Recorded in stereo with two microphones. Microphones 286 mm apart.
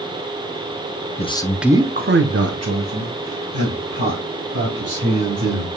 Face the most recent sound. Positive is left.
turn(degrees=-80)